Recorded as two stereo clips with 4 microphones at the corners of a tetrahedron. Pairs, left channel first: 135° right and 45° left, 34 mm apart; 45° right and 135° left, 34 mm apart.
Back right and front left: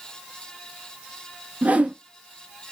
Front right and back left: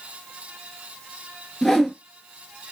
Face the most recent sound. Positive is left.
turn(degrees=30)